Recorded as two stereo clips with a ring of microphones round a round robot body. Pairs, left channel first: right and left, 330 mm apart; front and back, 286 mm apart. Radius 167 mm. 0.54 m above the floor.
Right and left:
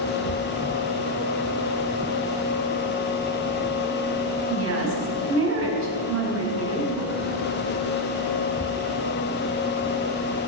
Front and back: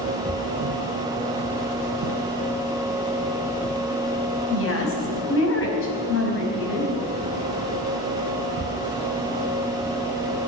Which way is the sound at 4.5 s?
40° left.